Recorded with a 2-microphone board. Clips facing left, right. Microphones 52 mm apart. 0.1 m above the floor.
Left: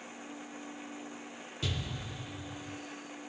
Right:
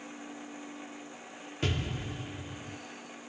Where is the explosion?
45° right (ahead or behind), 0.6 m.